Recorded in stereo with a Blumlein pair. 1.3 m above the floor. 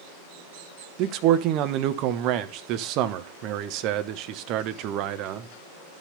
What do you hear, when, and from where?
1.0 s a man speaking: 40° right, 1.0 m